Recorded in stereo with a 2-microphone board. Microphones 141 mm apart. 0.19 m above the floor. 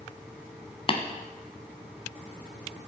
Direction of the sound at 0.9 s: 40° left (ahead or behind).